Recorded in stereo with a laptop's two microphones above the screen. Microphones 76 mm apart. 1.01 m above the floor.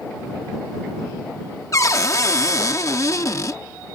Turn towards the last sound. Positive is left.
turn(degrees=45)  # may be behind; listen again after turning